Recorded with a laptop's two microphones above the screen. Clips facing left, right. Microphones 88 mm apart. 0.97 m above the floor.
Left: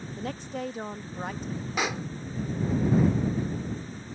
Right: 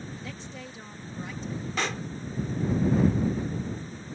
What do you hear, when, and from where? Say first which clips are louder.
0.2 s a woman speaking: left 7 dB; 55° left (ahead or behind)
1.8 s a pop: left 2 dB; 10° left (ahead or behind)